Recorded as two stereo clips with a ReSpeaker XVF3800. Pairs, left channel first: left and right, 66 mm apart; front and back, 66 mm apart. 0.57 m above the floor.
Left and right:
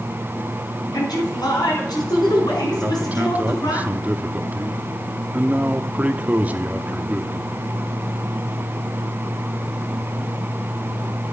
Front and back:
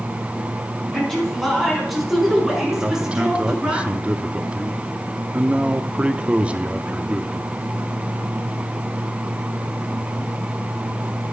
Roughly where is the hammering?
I don't hear hammering.